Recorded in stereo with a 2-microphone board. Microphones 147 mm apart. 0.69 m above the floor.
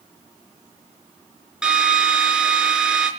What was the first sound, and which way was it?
A drill, 5° right (ahead or behind).